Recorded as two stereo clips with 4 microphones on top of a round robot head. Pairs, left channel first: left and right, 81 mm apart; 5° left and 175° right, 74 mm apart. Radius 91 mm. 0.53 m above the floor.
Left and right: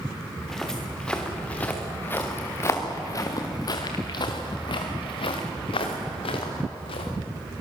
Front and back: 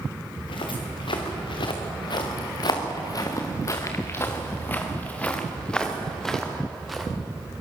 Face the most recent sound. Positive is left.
turn(degrees=95)